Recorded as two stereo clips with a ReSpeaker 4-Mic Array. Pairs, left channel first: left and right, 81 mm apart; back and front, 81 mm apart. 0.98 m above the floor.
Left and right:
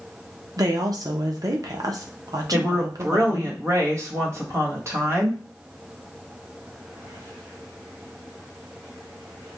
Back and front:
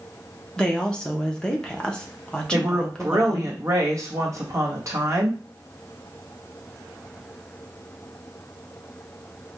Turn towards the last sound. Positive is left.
turn(degrees=-45)